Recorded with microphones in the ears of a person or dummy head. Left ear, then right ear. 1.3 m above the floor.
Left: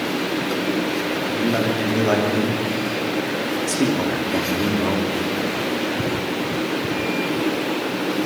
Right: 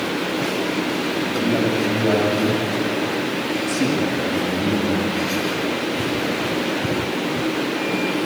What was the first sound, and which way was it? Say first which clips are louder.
A man speaking: right 1 dB; 85° left.